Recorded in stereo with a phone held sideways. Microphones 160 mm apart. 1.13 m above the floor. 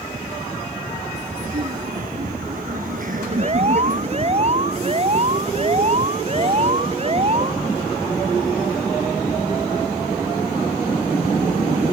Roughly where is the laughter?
Right.